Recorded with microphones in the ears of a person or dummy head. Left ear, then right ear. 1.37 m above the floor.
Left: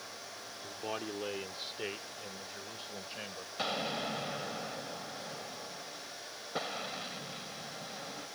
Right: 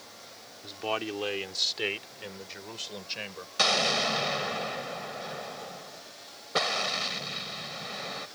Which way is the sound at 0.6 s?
45° right (ahead or behind).